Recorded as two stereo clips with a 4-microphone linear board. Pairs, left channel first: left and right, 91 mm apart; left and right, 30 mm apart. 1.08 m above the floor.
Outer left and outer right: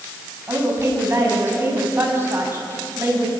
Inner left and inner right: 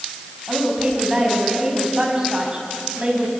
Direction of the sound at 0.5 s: 30° right (ahead or behind).